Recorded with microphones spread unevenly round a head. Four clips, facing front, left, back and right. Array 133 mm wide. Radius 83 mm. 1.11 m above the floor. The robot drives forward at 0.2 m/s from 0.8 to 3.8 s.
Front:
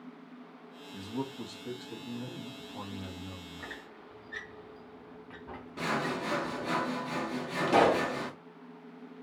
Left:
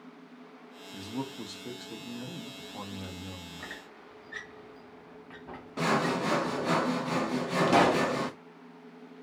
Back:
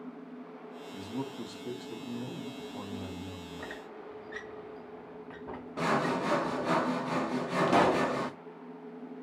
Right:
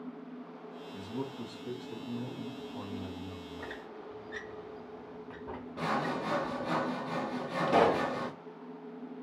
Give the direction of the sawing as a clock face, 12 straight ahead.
9 o'clock.